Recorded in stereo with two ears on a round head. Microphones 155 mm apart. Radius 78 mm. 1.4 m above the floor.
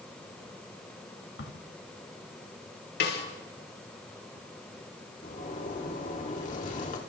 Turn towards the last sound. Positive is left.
turn(degrees=45)  # may be behind; listen again after turning